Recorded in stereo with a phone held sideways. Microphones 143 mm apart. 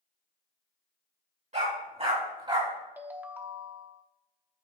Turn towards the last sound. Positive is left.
turn(degrees=-15)  # may be behind; listen again after turning